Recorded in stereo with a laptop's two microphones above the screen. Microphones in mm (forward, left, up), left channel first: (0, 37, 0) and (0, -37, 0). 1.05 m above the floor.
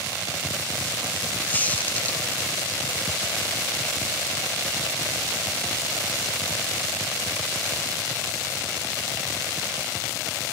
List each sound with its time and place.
1.5 s a squeak: 20° left (ahead or behind), 0.6 m